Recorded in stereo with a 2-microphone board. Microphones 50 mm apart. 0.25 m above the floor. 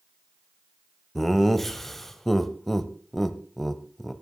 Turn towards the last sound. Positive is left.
turn(degrees=5)  # may be behind; listen again after turning